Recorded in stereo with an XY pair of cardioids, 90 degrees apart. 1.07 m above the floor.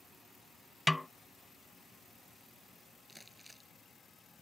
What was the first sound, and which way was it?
A snare drum, 15° left.